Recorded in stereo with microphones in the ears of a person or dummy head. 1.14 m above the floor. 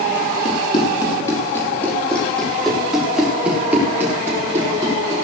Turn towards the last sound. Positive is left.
turn(degrees=-20)  # may be behind; listen again after turning